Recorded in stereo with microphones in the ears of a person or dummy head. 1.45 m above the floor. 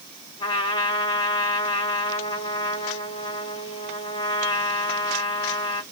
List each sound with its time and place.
0.4 s a trumpet: 30° left (ahead or behind), 2 m